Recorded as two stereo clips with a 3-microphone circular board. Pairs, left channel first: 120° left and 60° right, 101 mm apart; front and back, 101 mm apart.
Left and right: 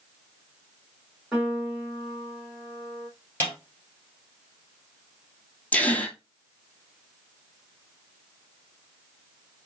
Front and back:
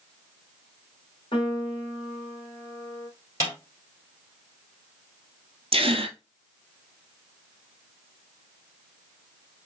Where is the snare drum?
55° left, 3 m.